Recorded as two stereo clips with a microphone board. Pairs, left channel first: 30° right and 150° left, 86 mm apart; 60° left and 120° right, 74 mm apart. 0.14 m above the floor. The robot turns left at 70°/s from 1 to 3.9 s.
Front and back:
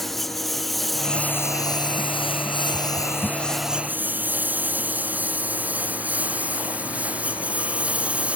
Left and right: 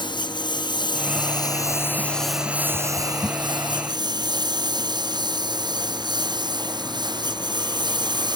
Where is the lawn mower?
60° left; by 8.4 s 135° right.